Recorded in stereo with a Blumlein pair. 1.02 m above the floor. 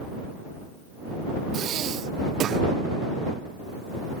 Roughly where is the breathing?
Ahead right.